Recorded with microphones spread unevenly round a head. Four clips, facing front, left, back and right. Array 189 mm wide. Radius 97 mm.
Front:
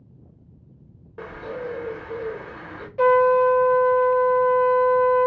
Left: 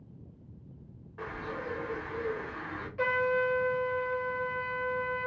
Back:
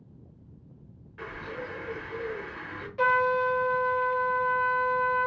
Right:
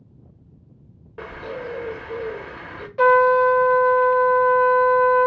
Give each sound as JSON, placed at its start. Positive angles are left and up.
{"t": 1.2, "sound": "a bird", "azimuth_deg": -65, "distance_m": 0.7}
{"t": 3.0, "sound": "a trumpet", "azimuth_deg": -95, "distance_m": 0.7}